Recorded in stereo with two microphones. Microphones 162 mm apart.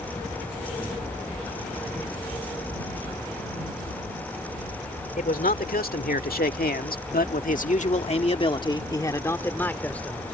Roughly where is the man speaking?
Left.